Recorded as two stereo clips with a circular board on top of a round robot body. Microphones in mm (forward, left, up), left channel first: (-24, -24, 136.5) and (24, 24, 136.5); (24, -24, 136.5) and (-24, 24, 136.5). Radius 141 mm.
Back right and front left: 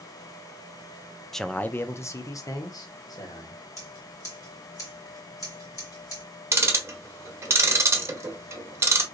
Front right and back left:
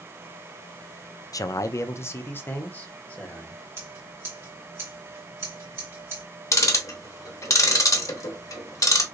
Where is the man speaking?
50° right, 0.5 m; by 3.6 s 115° right, 1.5 m.